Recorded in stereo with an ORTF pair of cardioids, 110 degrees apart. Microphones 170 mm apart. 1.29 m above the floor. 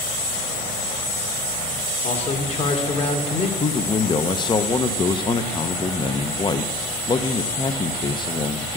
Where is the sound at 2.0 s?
40° left, 2.0 m.